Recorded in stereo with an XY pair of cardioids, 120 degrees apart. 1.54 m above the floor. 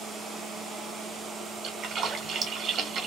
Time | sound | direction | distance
1.6 | a splash | 55° right | 1.4 m